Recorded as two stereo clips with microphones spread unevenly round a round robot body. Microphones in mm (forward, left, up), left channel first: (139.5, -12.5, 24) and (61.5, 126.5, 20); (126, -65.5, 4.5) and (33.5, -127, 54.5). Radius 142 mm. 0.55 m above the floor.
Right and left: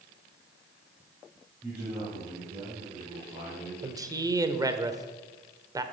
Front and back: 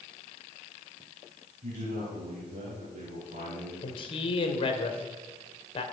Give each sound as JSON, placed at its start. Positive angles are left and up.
{"t": 1.6, "sound": "a man speaking", "azimuth_deg": -160, "distance_m": 3.0}
{"t": 3.8, "sound": "a man speaking", "azimuth_deg": 50, "distance_m": 1.6}